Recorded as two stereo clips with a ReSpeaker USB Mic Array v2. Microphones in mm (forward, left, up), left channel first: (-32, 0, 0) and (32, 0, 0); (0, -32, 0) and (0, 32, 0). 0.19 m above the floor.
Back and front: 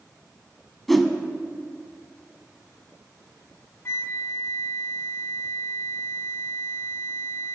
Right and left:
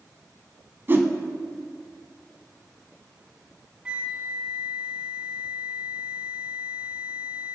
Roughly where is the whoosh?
Left.